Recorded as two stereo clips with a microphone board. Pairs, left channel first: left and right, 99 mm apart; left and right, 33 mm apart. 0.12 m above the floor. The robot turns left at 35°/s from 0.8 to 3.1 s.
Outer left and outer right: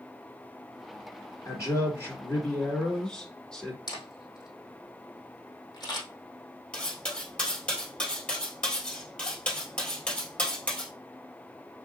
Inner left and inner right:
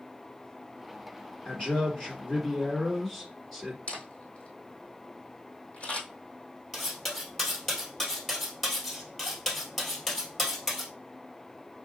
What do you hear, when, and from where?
1.4 s a man speaking: 75° left, 1.9 m; by 3.8 s 15° left, 1.9 m
3.9 s a camera shutter: 50° left (ahead or behind), 2.5 m
6.7 s cutlery clinking: 10° left (ahead or behind), 1.8 m